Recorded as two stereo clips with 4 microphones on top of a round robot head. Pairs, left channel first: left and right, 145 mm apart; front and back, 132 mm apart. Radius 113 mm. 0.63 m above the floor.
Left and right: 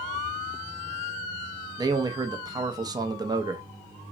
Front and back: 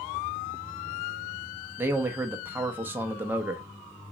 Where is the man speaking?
120° right, 0.6 m.